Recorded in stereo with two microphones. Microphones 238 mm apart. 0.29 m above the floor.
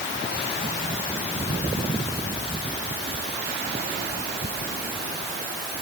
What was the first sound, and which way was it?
Only background noise.